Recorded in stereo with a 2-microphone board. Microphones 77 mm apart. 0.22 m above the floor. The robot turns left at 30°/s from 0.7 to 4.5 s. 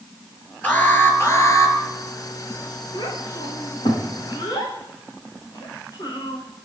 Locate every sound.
0.6 s an alarm: 160° left, 4.5 m; by 1.8 s 130° left, 4.5 m
2.9 s a child speaking: 80° left, 9.5 m; by 6.4 s 55° left (ahead or behind), 9.5 m